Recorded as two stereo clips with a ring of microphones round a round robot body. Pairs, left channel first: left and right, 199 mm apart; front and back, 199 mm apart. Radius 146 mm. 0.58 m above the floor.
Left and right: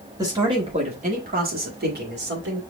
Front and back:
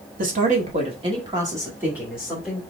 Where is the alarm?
No alarm in this recording.